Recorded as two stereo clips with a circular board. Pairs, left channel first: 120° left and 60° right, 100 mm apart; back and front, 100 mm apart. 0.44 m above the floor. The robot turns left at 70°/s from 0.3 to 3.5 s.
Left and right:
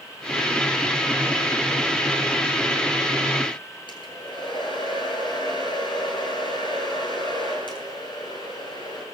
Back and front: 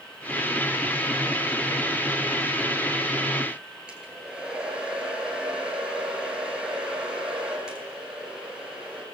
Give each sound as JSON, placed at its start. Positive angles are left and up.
{"t": 3.9, "sound": "a hair dryer", "azimuth_deg": 80, "distance_m": 9.5}